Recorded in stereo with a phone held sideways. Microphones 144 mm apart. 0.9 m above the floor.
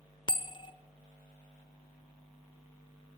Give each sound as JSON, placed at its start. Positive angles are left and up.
{"t": 0.3, "sound": "a bell", "side_deg": 35, "distance_m": 0.8}